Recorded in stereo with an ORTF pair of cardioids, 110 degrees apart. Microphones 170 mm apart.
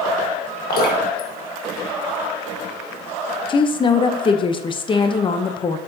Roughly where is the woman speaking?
Ahead left.